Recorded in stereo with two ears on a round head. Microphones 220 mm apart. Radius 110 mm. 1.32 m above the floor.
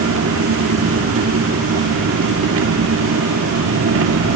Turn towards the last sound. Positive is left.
turn(degrees=-60)  # may be behind; listen again after turning